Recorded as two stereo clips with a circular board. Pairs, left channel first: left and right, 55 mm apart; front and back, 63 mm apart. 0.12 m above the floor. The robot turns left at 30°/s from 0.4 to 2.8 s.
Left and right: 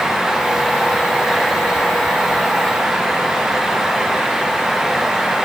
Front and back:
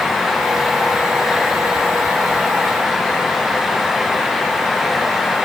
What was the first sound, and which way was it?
Only background noise.